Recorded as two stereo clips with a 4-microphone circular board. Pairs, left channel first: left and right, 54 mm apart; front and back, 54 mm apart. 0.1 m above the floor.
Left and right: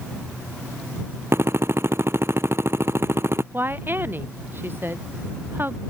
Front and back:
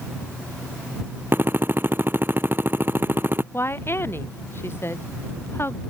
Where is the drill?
130° right.